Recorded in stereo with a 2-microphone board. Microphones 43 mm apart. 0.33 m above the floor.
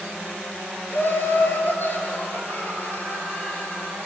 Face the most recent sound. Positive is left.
turn(degrees=40)  # may be behind; listen again after turning